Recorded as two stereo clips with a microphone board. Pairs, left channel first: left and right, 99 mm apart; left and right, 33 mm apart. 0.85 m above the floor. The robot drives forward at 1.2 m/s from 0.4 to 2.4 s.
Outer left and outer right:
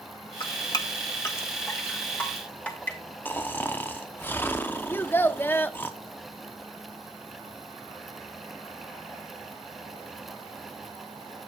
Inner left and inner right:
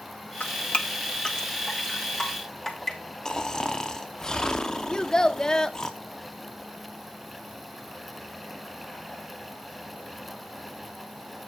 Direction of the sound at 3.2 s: 20° left (ahead or behind).